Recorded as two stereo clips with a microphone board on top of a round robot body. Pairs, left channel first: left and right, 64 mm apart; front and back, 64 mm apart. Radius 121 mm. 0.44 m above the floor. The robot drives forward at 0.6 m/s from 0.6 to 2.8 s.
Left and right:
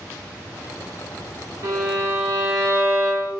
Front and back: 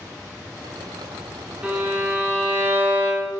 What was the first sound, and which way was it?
A violin, 110° right.